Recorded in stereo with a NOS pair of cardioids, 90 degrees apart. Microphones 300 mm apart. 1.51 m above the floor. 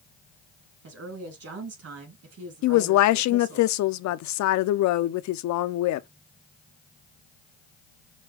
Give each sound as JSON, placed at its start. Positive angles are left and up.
{"t": 0.8, "sound": "a woman speaking", "azimuth_deg": -50, "distance_m": 3.0}
{"t": 2.6, "sound": "a woman speaking", "azimuth_deg": 70, "distance_m": 0.6}